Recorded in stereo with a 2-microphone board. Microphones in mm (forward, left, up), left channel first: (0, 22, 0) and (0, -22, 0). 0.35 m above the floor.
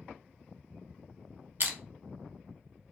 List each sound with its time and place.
1.6 s crushing: 55° right (ahead or behind), 0.6 m